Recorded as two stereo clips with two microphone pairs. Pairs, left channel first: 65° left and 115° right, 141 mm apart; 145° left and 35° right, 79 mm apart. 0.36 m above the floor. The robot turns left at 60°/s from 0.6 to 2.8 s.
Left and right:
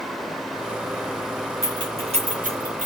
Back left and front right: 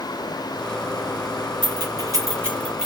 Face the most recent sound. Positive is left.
turn(degrees=-120)